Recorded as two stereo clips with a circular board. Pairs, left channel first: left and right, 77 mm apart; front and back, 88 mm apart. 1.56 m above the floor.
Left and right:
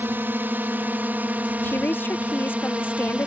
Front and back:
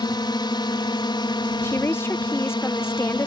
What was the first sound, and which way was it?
A drone, 30° right.